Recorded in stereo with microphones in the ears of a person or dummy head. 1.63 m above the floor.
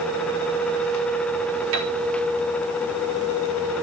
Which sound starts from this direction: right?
A piano, at 1.7 s.